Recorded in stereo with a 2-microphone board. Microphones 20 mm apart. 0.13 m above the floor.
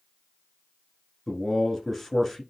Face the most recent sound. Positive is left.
turn(degrees=5)  # may be behind; listen again after turning